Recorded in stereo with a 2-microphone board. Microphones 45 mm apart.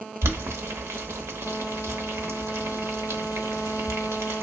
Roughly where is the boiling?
Right.